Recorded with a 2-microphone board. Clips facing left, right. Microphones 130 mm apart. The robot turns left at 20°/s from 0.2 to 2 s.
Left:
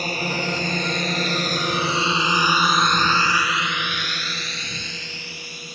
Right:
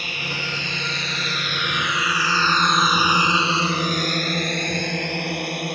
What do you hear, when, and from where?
0.0 s a drone: 40° left (ahead or behind); by 5.8 s 65° right (ahead or behind)